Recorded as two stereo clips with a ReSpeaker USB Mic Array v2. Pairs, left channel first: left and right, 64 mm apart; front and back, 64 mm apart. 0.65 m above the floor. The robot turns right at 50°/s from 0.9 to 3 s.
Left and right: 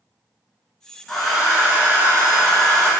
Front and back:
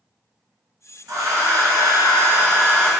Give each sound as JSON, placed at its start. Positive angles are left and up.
{"t": 1.1, "sound": "a hair dryer", "azimuth_deg": 175, "distance_m": 1.1}